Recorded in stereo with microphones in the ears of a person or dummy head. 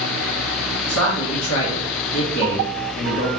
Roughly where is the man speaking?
Left.